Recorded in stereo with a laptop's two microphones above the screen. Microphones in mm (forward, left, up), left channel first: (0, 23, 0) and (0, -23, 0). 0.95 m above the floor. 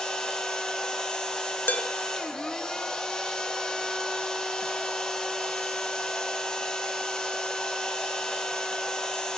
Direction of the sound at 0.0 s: 15° left (ahead or behind).